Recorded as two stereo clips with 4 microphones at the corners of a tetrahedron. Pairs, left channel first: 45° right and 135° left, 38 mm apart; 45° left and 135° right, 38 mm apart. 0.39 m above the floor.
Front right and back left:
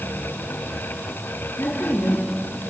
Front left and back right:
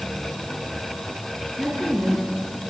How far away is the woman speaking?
About 5 m.